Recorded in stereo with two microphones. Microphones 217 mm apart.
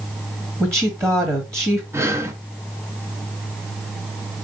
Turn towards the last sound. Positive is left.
turn(degrees=-10)  # may be behind; listen again after turning